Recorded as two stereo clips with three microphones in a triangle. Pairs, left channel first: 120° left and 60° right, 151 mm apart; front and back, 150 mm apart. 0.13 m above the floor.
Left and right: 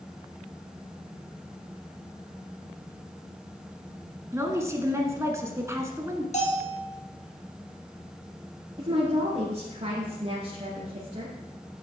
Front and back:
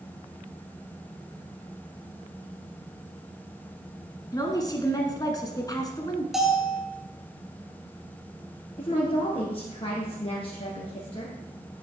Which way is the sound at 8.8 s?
35° right.